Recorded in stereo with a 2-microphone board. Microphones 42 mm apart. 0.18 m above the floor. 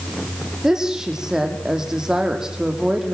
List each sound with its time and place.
0.6 s a woman speaking: 15° right (ahead or behind), 6 m